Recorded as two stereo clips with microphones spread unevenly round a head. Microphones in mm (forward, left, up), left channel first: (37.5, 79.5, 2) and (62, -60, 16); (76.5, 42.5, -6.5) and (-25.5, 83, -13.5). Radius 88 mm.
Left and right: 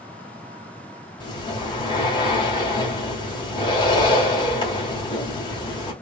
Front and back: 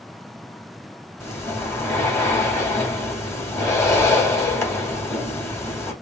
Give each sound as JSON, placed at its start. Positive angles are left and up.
{"t": 1.2, "sound": "breathing", "azimuth_deg": 45, "distance_m": 2.5}